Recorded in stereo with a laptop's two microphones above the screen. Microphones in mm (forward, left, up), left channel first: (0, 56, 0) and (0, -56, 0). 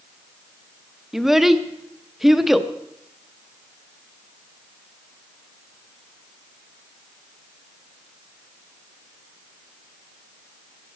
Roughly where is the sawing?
I don't hear sawing.